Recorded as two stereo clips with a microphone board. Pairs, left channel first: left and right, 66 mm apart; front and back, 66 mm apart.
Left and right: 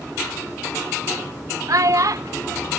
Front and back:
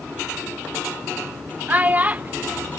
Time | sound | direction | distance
1.7 | a child speaking | 115° right | ?